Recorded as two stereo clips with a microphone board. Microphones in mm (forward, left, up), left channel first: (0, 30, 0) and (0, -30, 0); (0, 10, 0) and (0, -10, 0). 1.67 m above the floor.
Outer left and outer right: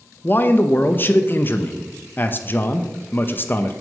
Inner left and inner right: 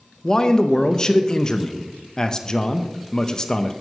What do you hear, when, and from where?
0.2 s a man speaking: 35° left (ahead or behind), 0.5 m